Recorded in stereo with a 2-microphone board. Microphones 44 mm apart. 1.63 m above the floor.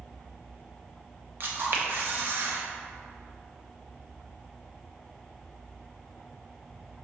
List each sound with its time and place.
1.4 s a camera shutter: 50° right (ahead or behind), 0.6 m